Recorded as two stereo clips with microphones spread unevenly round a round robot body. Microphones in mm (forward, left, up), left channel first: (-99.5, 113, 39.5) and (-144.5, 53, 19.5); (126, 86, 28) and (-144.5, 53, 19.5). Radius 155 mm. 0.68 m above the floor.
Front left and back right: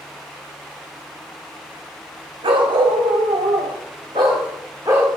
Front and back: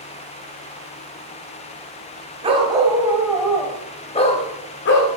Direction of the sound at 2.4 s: 100° right.